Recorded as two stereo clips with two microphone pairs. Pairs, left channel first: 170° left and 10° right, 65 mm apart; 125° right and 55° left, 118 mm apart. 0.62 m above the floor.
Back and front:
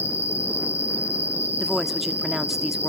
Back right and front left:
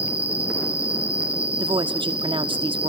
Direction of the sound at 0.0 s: 130° left.